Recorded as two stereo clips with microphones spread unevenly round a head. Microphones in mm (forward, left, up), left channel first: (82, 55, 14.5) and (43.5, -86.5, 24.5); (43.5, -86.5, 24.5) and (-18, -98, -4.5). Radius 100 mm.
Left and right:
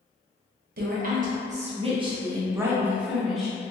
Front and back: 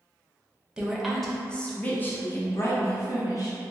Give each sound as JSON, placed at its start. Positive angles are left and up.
{"t": 0.8, "sound": "a woman speaking", "azimuth_deg": -90, "distance_m": 1.0}